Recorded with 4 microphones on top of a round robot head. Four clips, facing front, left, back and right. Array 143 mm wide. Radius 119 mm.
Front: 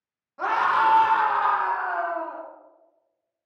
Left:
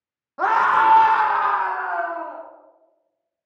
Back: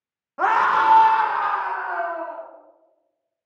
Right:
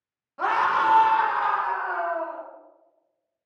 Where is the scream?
140° left, 1.4 m; by 2.4 s 55° left, 2.5 m.